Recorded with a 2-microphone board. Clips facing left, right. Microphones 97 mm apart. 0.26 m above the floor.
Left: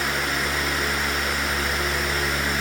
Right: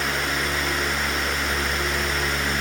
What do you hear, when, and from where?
Only background noise.